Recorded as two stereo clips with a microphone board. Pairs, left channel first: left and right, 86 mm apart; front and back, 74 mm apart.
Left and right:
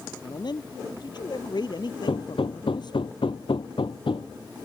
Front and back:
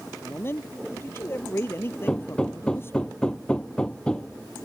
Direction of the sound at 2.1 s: 80° left.